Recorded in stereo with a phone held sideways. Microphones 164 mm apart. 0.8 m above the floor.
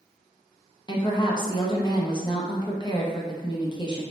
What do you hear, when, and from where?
0.9 s a woman speaking: 30° left (ahead or behind), 0.6 m